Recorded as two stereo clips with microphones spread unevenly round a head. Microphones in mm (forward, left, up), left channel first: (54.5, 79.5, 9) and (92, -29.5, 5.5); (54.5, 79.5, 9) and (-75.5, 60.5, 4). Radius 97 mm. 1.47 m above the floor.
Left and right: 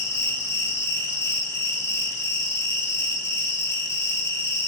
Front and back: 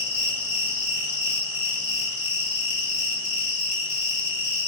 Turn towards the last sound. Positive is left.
turn(degrees=45)